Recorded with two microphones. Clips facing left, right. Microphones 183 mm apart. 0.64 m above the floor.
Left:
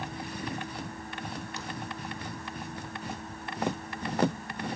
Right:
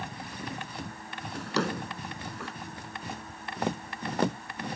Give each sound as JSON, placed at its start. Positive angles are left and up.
{"t": 1.3, "sound": "a drawer", "side_deg": -85}